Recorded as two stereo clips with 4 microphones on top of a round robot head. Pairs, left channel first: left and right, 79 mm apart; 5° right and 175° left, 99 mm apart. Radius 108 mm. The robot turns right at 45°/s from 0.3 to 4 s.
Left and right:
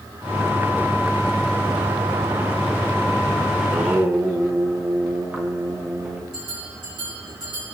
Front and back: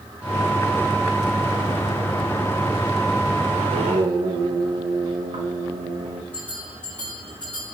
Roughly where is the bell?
Right.